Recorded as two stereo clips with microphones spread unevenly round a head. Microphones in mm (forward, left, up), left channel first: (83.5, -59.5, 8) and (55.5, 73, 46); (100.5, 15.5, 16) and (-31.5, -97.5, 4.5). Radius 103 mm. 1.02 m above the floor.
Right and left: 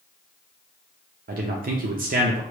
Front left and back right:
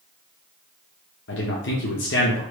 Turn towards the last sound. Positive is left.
turn(degrees=75)